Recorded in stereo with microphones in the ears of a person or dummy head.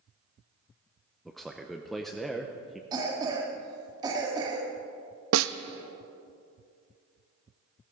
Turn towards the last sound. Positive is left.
turn(degrees=-75)  # may be behind; listen again after turning